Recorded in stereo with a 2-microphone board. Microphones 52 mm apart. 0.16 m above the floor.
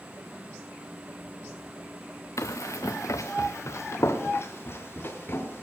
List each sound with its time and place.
2.4 s running footsteps: 75° left (ahead or behind), 0.9 m; by 5.6 s 45° left (ahead or behind), 2.5 m